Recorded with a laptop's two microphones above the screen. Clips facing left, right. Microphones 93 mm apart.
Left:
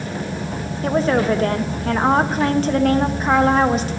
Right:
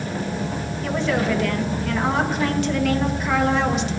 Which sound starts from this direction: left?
A woman speaking, at 0.8 s.